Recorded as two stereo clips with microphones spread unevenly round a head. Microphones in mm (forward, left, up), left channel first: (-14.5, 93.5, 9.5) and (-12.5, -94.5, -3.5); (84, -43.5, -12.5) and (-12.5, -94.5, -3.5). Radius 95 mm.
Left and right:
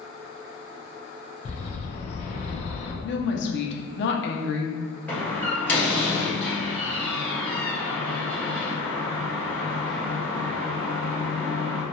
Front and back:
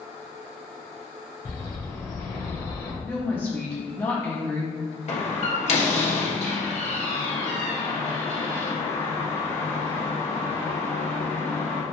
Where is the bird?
70° left, 0.6 m.